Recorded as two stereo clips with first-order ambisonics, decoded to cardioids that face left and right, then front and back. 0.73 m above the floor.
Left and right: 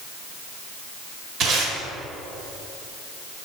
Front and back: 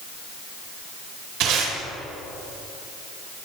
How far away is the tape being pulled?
About 2.5 m.